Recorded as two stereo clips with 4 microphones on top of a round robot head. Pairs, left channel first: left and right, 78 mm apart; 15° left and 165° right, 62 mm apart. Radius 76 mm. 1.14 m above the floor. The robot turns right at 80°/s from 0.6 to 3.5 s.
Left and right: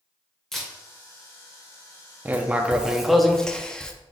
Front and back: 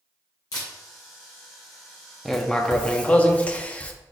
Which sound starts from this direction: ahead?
A camera shutter, at 0.5 s.